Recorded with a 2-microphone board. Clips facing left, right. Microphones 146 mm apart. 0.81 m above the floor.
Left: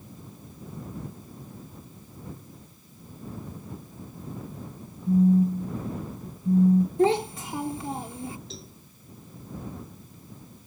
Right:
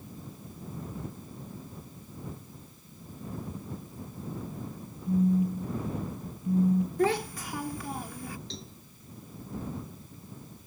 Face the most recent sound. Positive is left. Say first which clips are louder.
# even
turn(degrees=5)  # may be behind; listen again after turning